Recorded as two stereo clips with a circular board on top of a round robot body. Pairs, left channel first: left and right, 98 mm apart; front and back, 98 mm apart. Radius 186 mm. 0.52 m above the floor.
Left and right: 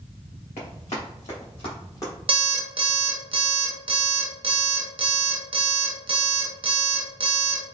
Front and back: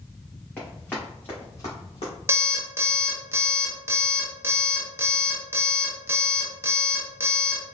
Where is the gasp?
No gasp in this recording.